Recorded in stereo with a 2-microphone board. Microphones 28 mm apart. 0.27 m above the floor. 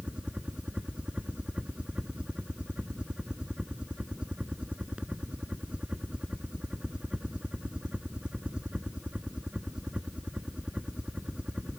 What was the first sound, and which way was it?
A helicopter, 40° right (ahead or behind).